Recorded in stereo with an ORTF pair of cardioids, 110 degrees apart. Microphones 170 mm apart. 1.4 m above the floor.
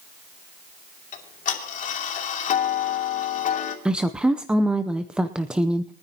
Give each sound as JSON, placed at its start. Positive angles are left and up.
{"t": 1.1, "sound": "ticking", "azimuth_deg": 50, "distance_m": 2.5}
{"t": 3.9, "sound": "a woman speaking", "azimuth_deg": -5, "distance_m": 0.7}